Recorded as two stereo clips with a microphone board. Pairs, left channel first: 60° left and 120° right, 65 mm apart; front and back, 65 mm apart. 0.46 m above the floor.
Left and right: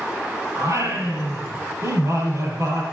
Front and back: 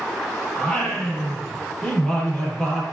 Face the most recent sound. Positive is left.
turn(degrees=-85)